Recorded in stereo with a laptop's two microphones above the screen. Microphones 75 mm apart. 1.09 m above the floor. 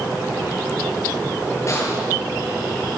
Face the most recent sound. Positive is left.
turn(degrees=40)  # may be behind; listen again after turning